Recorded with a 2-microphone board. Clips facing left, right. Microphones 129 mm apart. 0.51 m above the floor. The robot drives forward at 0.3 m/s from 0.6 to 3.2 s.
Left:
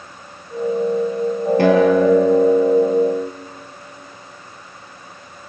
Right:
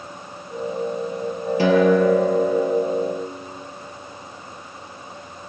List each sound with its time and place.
1.6 s a guitar: 60° left (ahead or behind), 3.5 m; by 3.3 s 50° left (ahead or behind), 4 m